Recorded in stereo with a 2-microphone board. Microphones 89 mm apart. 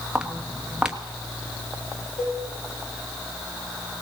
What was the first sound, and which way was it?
Footsteps, 10° right (ahead or behind).